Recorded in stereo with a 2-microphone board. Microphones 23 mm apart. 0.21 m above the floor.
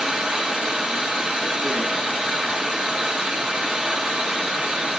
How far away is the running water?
About 2 m.